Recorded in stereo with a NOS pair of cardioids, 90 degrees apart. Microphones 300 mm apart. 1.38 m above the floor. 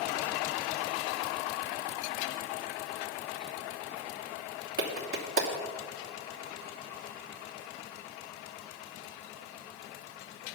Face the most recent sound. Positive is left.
turn(degrees=-45)